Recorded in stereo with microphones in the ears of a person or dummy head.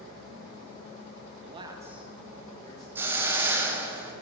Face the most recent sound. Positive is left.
turn(degrees=-10)  # may be behind; listen again after turning